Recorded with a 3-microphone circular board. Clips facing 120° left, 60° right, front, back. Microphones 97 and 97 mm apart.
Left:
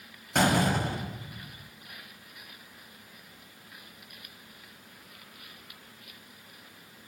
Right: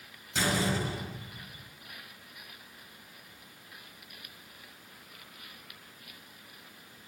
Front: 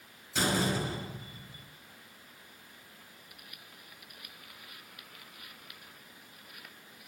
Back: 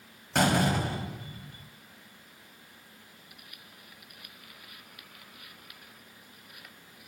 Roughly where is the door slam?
Behind left.